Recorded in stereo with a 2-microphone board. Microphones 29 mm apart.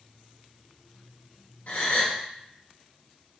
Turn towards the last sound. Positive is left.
turn(degrees=70)  # may be behind; listen again after turning